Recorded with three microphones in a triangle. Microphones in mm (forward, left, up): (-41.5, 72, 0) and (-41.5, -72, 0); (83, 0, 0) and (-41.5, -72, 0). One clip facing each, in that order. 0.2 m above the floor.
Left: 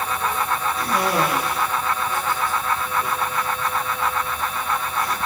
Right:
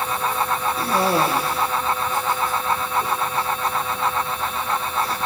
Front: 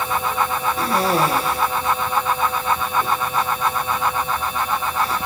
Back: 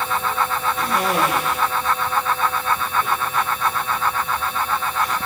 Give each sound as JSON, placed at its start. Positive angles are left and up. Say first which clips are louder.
{"t": 0.8, "sound": "a cough", "louder": "right 2 dB, front 2 dB", "azimuth_deg": -30, "distance_m": 5.0}